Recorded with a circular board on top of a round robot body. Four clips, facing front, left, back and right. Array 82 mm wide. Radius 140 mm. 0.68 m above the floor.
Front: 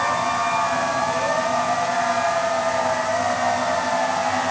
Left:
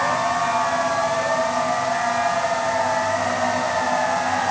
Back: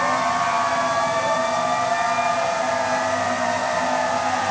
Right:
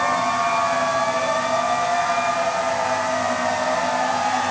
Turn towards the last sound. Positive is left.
No sound to turn to.